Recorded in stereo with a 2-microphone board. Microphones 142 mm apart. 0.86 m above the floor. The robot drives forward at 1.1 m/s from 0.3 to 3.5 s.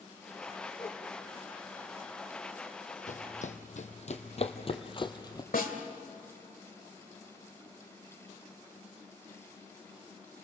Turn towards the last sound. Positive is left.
turn(degrees=85)